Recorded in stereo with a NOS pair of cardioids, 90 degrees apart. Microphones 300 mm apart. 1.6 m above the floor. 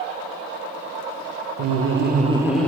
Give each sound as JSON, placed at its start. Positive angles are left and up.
{"t": 1.6, "sound": "laughter", "azimuth_deg": -60, "distance_m": 0.7}